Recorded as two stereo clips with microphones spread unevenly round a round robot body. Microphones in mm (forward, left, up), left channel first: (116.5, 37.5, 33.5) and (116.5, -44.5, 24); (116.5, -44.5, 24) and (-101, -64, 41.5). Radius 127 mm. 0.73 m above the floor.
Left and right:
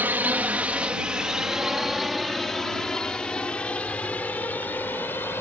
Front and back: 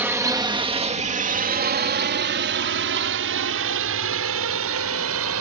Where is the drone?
95° right; by 5.4 s 165° left.